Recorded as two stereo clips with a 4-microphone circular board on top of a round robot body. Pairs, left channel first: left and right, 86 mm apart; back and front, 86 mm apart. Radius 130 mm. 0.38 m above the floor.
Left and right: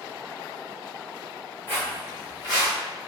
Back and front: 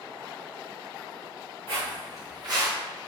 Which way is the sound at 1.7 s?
25° left.